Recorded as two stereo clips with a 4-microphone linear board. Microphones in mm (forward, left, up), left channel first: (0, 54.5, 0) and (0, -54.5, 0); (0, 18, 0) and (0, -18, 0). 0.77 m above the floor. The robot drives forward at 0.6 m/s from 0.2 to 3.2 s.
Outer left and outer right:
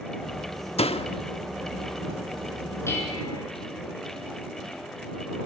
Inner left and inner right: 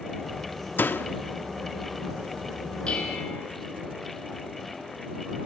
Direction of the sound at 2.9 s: 25° left (ahead or behind).